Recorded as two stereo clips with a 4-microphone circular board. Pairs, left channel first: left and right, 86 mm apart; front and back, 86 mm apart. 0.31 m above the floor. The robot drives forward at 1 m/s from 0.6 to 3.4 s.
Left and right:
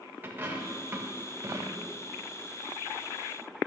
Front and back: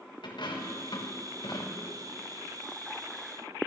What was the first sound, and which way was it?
A dropped coin, 20° right.